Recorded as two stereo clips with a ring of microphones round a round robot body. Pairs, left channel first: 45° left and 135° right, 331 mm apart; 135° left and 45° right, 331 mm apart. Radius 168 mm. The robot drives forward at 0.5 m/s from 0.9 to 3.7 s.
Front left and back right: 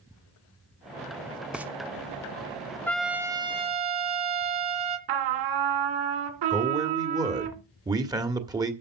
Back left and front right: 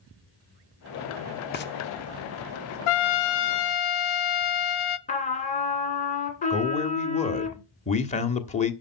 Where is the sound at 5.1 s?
155° right, 2.0 m.